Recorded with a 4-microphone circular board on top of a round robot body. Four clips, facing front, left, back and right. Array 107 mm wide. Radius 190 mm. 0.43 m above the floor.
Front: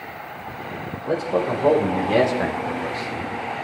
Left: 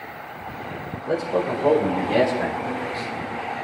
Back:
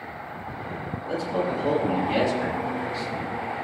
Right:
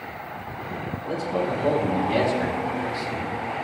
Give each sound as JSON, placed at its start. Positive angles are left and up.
{"t": 1.1, "sound": "a man speaking", "azimuth_deg": 30, "distance_m": 2.5}